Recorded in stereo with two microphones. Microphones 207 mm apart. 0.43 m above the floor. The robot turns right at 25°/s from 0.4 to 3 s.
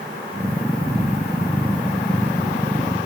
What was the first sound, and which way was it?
Only background noise.